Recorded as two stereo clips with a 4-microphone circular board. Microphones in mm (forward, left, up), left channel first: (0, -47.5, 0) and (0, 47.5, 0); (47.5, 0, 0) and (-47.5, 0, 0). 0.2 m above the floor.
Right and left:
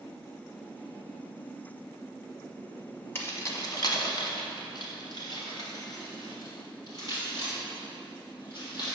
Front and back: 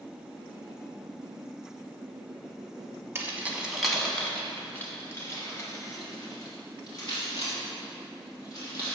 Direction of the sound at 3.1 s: 135° right.